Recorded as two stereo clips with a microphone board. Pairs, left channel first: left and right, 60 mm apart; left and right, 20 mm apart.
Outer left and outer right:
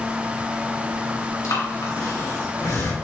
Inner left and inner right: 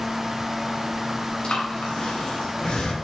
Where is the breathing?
75° left (ahead or behind), 2 m.